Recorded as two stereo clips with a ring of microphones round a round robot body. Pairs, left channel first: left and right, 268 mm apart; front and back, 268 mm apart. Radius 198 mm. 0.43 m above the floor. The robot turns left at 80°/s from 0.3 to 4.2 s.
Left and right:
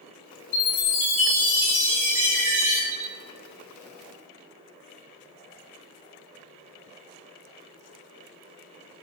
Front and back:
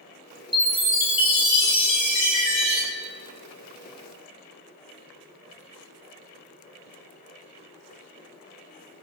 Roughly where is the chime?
Left.